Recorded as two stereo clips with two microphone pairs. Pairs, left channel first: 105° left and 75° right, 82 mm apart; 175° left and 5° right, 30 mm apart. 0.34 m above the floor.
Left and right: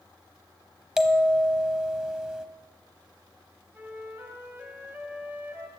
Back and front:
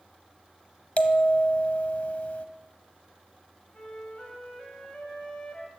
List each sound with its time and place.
1.0 s a bell: 160° right, 0.9 m
3.7 s a flute: 135° right, 2 m